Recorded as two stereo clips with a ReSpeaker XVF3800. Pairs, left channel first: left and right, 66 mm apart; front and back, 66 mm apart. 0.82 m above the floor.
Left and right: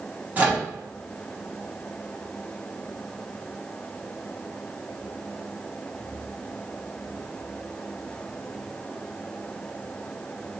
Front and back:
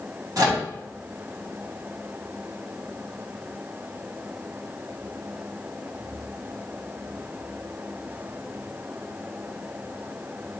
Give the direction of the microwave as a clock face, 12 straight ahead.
5 o'clock.